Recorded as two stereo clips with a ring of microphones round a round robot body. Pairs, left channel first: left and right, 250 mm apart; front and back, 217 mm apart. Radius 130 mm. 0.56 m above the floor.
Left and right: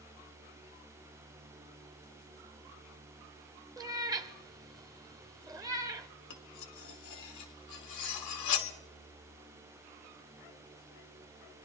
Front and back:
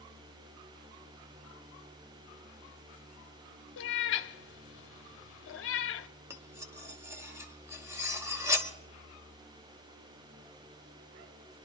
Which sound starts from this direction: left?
Cutlery clinking, at 6.3 s.